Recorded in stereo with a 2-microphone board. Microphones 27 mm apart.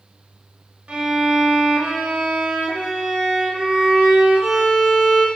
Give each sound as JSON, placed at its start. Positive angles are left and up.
{"t": 0.9, "sound": "a violin", "side_deg": -50, "distance_m": 1.1}